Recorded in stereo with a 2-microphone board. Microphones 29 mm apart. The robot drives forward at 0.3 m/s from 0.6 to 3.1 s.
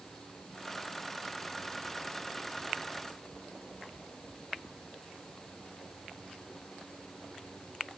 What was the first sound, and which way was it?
Only background noise.